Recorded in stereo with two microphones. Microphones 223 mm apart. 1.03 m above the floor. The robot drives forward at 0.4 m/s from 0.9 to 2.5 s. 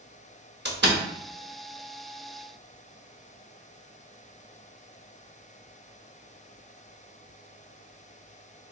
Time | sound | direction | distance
0.7 | a door slam | 50° right (ahead or behind) | 0.9 m